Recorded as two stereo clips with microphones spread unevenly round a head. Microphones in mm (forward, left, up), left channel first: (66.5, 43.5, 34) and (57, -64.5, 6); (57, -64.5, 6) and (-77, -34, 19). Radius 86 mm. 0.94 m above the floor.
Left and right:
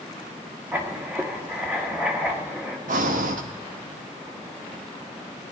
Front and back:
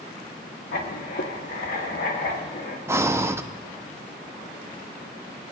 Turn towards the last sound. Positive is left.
turn(degrees=-120)